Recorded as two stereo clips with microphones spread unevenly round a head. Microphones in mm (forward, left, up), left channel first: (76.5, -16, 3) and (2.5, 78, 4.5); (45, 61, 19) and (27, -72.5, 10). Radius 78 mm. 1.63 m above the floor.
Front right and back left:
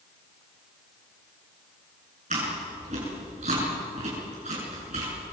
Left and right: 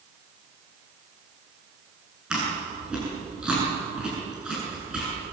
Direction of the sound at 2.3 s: 175° left.